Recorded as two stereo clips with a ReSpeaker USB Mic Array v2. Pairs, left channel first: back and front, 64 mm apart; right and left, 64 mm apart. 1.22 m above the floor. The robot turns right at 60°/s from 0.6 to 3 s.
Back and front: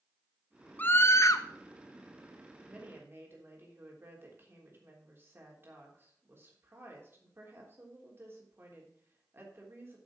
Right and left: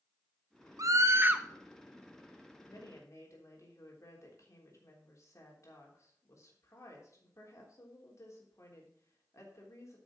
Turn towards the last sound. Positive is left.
turn(degrees=-50)